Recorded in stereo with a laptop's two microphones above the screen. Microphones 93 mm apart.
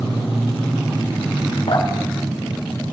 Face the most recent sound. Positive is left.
turn(degrees=75)  # may be behind; listen again after turning